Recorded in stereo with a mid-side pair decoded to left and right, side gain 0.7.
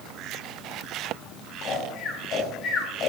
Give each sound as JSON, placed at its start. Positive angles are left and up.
{"t": 1.6, "sound": "snoring", "azimuth_deg": 45, "distance_m": 4.0}